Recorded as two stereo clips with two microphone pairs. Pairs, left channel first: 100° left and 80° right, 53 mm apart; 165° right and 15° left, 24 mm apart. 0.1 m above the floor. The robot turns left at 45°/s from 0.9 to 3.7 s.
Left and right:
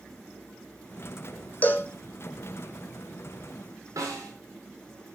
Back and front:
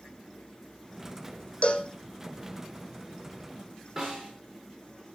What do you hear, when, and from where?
1.6 s a cowbell: 155° left, 1.5 m; by 1.9 s 145° left, 1.5 m
4.0 s a snare drum: 55° right, 7.5 m